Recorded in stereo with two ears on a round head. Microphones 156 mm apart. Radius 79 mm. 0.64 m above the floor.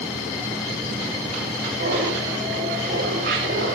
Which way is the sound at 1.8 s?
65° right (ahead or behind).